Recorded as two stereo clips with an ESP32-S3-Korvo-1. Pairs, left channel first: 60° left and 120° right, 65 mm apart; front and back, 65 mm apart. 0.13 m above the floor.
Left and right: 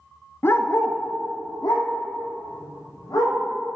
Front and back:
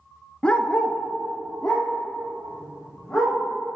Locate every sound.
0.4 s a dog barking: 60° left, 0.5 m; by 3.4 s 80° left, 3 m